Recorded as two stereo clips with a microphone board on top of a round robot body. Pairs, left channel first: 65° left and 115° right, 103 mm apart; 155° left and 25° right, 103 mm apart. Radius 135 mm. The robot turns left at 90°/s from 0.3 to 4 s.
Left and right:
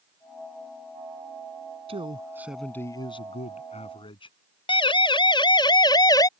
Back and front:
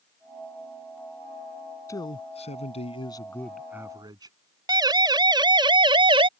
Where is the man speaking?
140° right; by 4.3 s 30° left.